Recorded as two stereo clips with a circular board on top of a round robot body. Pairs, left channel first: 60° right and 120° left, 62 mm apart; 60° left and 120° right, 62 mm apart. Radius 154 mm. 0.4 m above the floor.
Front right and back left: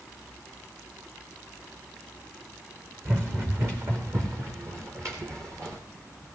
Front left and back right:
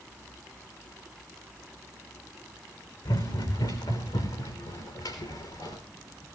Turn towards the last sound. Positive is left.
turn(degrees=75)